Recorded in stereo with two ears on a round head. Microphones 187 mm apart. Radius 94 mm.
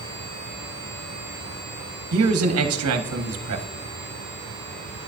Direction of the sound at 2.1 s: 80° right.